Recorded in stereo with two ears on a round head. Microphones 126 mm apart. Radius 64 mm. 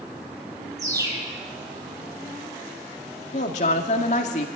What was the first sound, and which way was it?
A bird, 25° right (ahead or behind).